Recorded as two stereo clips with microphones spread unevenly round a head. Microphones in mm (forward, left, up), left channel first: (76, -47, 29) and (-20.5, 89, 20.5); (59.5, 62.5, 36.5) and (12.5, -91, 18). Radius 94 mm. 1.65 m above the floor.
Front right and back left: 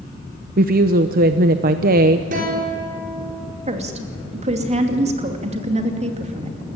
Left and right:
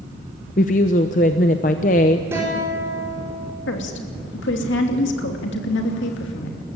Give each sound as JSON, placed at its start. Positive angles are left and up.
{"t": 0.6, "sound": "a woman speaking", "azimuth_deg": 105, "distance_m": 0.7}
{"t": 2.3, "sound": "a guitar", "azimuth_deg": 175, "distance_m": 5.0}
{"t": 3.7, "sound": "a woman speaking", "azimuth_deg": 75, "distance_m": 2.5}